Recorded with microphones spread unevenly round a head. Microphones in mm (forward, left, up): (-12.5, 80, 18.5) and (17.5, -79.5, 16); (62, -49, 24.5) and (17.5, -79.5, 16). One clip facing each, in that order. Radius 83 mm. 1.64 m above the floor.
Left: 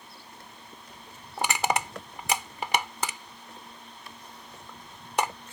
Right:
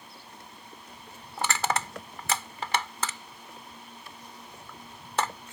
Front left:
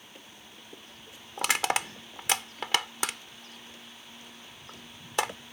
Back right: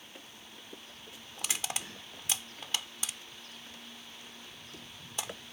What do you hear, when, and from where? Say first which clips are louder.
1.4 s crushing: left 2 dB, front left 11 dB; 25° left